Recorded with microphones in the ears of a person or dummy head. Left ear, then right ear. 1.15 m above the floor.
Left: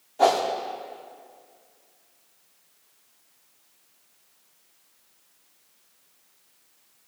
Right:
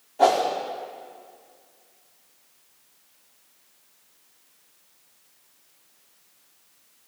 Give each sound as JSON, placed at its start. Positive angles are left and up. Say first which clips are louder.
{"t": 0.2, "sound": "a whoosh", "louder": "right 1 dB", "side_deg": 10, "distance_m": 0.9}